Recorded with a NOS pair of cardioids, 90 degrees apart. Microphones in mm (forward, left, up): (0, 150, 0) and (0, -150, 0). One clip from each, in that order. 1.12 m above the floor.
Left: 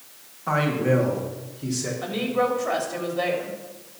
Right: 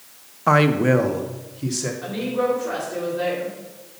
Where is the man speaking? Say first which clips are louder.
Right 6 dB; 50° right, 0.9 m; by 1.9 s 25° right, 2 m.